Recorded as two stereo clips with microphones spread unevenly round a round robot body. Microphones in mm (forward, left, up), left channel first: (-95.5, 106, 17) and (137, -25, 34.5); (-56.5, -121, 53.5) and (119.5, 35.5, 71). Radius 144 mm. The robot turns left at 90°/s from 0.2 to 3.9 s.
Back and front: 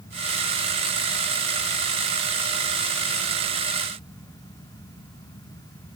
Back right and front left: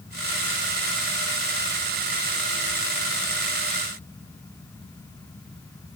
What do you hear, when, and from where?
Only background noise.